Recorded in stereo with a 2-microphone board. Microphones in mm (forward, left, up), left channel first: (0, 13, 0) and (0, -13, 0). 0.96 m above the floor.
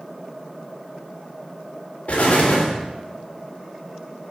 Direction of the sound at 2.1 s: 65° left (ahead or behind).